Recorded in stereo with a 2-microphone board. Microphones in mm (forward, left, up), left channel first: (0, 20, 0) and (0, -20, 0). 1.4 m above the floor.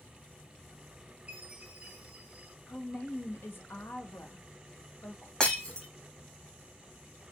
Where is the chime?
25° right (ahead or behind), 1.7 m.